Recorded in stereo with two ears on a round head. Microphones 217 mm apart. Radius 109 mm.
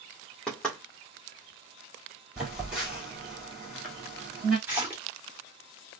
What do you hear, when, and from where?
0.5 s knocking: 5° left (ahead or behind), 1.5 m
2.4 s a phone buzzing: 5° right (ahead or behind), 2.5 m
4.7 s a splash: 10° right (ahead or behind), 1.7 m